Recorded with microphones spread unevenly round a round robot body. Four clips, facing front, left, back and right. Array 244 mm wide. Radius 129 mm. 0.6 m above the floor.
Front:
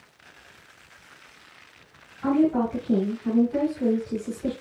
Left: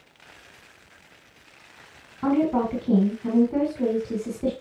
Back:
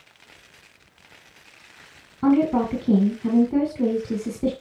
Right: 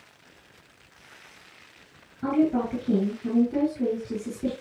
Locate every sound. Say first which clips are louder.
2.2 s a woman speaking: left 1 dB, back 2 dB; straight behind, 5.5 m